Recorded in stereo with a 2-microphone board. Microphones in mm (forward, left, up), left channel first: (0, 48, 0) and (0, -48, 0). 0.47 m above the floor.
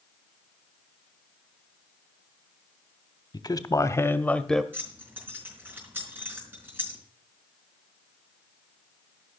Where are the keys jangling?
25° right (ahead or behind), 4 m.